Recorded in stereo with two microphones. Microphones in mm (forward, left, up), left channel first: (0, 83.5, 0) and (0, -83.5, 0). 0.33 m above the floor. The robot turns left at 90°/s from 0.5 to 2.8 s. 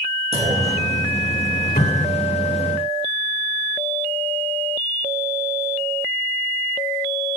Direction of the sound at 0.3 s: 40° right.